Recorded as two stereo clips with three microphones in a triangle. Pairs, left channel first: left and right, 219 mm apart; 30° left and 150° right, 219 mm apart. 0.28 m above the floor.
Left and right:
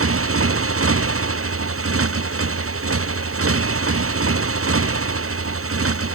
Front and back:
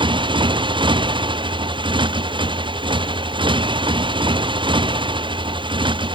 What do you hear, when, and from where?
0.0 s a motorcycle: 80° right